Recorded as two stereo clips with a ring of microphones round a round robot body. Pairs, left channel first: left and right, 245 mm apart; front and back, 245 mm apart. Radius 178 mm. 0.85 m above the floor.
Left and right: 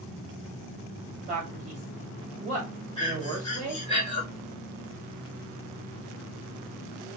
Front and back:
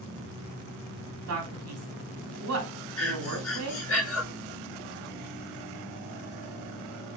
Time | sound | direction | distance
1.3 | a man speaking | 155° right | 2.0 m
3.0 | breathing | 20° left | 3 m